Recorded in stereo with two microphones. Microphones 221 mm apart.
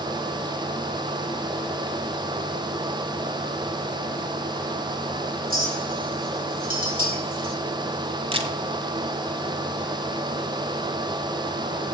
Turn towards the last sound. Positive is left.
turn(degrees=-25)  # may be behind; listen again after turning